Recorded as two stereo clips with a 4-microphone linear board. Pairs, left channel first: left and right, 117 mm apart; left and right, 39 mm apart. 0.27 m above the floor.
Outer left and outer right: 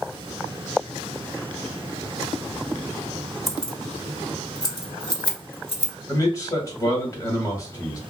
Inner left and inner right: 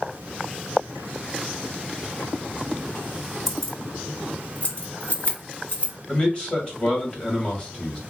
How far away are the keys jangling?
About 0.8 m.